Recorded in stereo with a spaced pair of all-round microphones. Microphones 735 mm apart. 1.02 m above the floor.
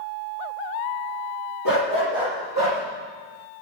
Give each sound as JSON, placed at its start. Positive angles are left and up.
{"t": 1.6, "sound": "a dog barking", "side_deg": 25, "distance_m": 6.5}